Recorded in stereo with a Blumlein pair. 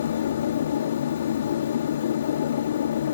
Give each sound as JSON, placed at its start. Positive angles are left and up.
{"t": 0.0, "sound": "a machine running", "azimuth_deg": 65}